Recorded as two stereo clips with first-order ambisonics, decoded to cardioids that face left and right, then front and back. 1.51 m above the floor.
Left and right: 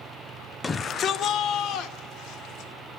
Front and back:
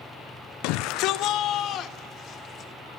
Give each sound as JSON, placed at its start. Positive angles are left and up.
{"t": 0.6, "sound": "a shout", "azimuth_deg": 15, "distance_m": 0.6}